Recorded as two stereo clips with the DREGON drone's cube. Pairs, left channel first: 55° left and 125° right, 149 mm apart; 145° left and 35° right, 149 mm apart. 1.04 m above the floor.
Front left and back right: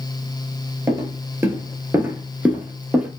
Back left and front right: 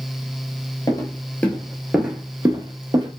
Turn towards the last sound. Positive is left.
turn(degrees=-50)